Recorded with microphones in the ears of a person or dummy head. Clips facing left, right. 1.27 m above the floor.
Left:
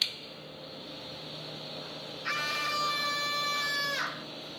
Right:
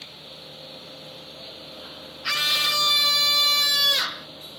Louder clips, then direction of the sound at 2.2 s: Right 4 dB; 50° right (ahead or behind).